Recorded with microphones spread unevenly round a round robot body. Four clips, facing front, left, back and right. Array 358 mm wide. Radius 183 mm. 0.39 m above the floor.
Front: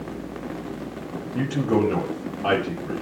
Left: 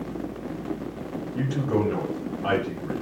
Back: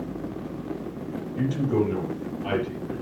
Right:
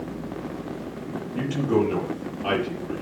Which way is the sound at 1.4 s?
5° left.